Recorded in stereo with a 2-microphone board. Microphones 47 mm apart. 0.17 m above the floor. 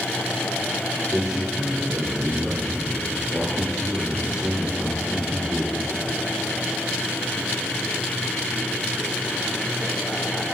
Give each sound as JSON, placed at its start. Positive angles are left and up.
{"t": 1.1, "sound": "a man speaking", "side_deg": -20, "distance_m": 2.5}